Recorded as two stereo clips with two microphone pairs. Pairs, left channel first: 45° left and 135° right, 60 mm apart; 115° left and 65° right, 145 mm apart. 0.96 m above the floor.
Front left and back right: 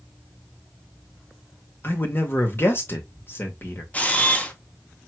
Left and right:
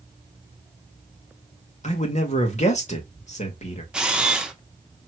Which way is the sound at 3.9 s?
15° left.